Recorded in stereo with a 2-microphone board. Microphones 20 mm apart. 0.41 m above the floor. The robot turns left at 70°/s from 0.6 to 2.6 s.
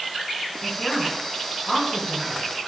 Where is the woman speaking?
60° left (ahead or behind), 5 m; by 2.4 s 10° right (ahead or behind), 5 m.